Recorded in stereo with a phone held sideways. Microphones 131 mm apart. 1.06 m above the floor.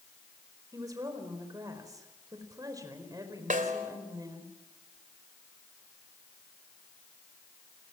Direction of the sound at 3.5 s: 80° right.